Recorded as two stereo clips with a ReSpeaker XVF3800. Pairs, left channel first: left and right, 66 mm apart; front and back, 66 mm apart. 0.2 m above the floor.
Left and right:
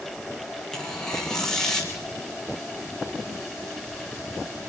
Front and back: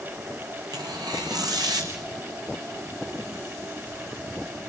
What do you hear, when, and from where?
0.7 s tearing paper: 170° left, 3.5 m